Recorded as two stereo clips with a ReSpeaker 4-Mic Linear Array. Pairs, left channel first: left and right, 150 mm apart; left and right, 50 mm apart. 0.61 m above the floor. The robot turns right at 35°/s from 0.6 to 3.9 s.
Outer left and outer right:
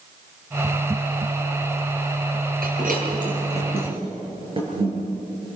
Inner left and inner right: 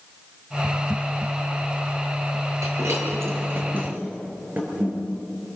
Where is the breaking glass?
80° right, 5 m; by 4.9 s 35° right (ahead or behind), 5 m.